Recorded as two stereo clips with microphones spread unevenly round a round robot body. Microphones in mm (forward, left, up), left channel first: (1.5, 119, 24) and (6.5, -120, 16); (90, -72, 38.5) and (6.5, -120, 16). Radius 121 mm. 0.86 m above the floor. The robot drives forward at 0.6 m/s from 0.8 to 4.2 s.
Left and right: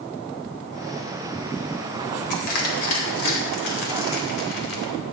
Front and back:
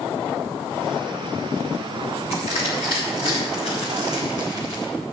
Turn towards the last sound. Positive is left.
turn(degrees=105)